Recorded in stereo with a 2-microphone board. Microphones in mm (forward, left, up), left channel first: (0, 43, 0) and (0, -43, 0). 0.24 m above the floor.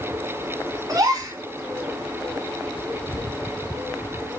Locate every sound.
0.9 s a gasp: 50° right (ahead or behind), 2.5 m